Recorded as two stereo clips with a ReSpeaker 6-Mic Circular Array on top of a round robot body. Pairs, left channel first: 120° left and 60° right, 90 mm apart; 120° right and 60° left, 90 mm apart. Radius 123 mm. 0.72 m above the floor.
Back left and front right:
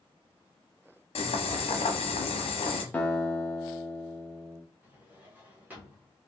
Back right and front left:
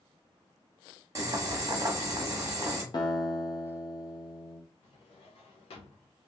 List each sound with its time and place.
1.1 s boiling: 115° left, 0.9 m
2.9 s a guitar: 165° right, 0.7 m
4.8 s a drawer: 135° right, 0.9 m